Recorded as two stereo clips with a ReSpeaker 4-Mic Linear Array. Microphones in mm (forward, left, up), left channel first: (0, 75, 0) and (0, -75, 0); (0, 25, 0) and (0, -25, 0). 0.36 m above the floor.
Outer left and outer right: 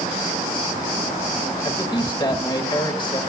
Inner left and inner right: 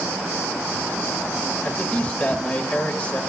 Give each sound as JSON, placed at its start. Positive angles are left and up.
{"t": 1.6, "sound": "a man speaking", "side_deg": 30, "distance_m": 1.5}